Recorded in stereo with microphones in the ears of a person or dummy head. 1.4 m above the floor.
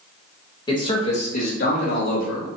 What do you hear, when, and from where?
0.7 s a man speaking: 20° left (ahead or behind), 1.2 m; by 2.5 s 65° left (ahead or behind), 1.6 m